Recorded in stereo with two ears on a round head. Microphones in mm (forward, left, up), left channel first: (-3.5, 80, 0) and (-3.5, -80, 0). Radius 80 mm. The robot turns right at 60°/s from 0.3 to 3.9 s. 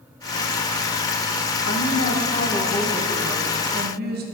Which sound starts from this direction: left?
A woman speaking, at 1.7 s.